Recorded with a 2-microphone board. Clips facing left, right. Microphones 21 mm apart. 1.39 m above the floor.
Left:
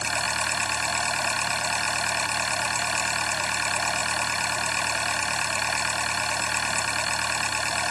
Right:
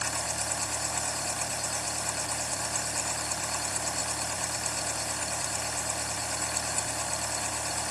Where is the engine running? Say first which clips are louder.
Left 7 dB; 65° left (ahead or behind).